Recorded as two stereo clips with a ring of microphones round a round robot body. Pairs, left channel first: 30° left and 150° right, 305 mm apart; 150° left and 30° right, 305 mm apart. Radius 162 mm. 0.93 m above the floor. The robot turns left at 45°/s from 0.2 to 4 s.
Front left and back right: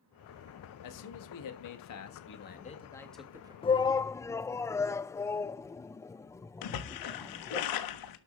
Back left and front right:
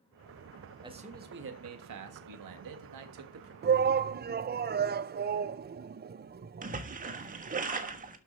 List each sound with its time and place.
0.8 s a man speaking: 45° left, 1.8 m; by 3.5 s 75° right, 1.8 m
3.6 s a shout: 25° right, 0.6 m; by 7.6 s 45° right, 0.6 m
6.6 s a splash: 35° left, 1.4 m